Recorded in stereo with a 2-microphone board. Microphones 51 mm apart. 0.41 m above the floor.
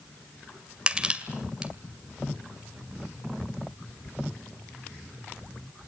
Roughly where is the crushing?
Centre.